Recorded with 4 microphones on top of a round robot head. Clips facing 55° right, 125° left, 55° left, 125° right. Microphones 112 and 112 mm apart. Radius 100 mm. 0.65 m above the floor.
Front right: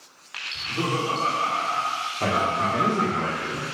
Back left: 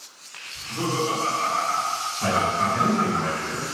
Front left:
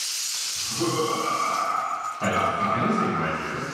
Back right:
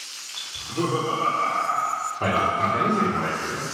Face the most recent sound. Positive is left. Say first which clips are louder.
# back left 1 dB, back right 1 dB
turn(degrees=-75)